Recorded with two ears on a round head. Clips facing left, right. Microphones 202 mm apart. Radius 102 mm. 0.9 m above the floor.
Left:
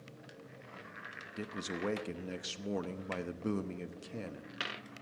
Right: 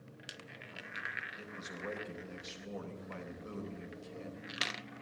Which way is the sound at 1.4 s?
65° left (ahead or behind).